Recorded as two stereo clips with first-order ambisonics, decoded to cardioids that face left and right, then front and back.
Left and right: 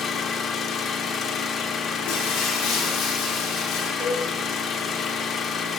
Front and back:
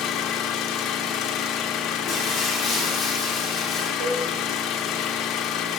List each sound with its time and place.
0.0 s an engine running: 40° left, 0.9 m
2.1 s breaking glass: 80° left, 5 m
4.0 s a cowbell: 150° right, 5.5 m